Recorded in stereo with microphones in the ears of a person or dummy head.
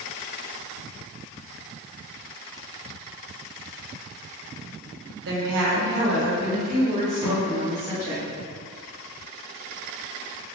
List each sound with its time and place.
5.2 s a woman speaking: 60° right (ahead or behind), 0.6 m; by 8.2 s 20° right (ahead or behind), 2.0 m
7.2 s a thud: 20° right (ahead or behind), 1.6 m